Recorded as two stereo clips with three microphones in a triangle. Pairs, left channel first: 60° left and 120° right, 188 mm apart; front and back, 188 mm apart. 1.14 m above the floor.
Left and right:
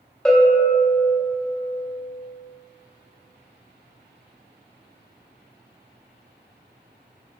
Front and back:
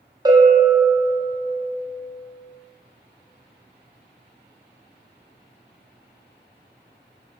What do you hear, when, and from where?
0.2 s a bell: 140° left, 0.6 m